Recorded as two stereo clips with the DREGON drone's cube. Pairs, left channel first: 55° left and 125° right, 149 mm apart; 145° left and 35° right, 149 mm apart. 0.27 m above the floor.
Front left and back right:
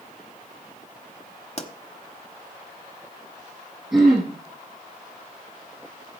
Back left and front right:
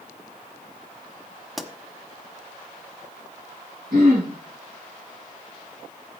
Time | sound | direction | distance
1.6 | a pop | 55° left | 1.1 m
3.9 | throat clearing | 35° right | 6 m